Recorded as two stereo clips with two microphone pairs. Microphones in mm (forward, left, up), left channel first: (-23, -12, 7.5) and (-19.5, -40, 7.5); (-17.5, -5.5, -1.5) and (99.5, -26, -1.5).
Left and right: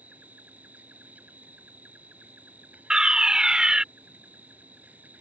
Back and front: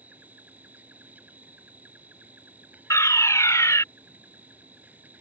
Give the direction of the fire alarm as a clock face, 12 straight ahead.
4 o'clock.